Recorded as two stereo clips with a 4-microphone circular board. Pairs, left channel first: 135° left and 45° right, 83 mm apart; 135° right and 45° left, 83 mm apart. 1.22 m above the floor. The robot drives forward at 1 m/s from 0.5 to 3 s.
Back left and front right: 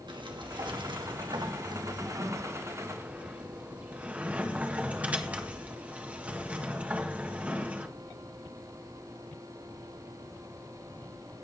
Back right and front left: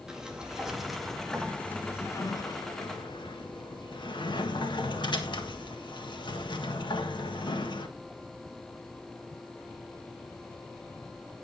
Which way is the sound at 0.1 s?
40° right.